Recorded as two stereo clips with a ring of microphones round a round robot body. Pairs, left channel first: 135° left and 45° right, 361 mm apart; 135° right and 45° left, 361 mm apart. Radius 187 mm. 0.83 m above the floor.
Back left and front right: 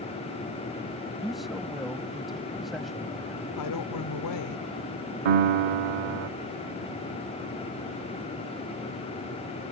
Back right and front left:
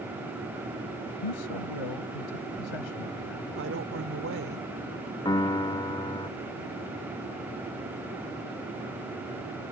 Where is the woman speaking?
100° left.